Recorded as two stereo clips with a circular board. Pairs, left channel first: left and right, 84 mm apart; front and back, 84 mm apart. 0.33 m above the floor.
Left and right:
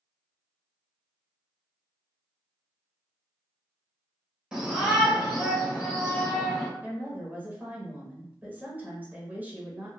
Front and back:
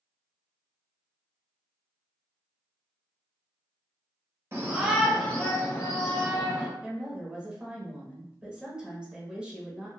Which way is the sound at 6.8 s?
120° right.